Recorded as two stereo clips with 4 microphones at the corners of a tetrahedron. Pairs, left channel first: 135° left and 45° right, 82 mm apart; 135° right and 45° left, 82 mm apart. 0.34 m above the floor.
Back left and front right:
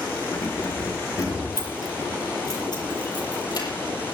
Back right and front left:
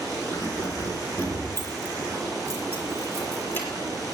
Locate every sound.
0.3 s keys jangling: 175° left, 3 m; by 3.7 s 160° left, 7 m